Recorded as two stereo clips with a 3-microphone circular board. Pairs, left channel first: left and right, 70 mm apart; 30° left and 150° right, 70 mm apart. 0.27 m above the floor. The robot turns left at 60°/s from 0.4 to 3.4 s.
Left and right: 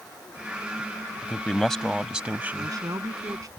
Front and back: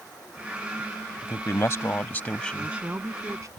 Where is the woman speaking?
65° right; by 3.5 s 115° right.